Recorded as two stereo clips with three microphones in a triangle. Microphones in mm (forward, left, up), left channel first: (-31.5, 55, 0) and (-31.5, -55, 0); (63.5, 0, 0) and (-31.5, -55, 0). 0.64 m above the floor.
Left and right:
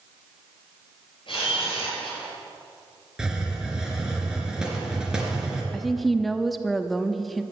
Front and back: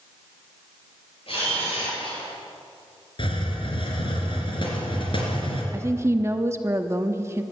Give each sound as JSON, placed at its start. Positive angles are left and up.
{"t": 1.3, "sound": "a camera shutter", "azimuth_deg": 55, "distance_m": 8.0}
{"t": 3.2, "sound": "a hiss", "azimuth_deg": -5, "distance_m": 3.5}
{"t": 5.7, "sound": "a woman speaking", "azimuth_deg": 180, "distance_m": 0.8}